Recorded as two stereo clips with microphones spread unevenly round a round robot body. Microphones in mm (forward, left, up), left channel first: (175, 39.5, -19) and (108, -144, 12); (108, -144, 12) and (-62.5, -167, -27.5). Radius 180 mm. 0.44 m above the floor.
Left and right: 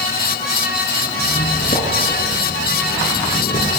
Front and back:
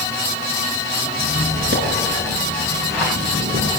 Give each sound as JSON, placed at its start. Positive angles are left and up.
{"t": 1.2, "sound": "a squeak", "azimuth_deg": 135, "distance_m": 2.5}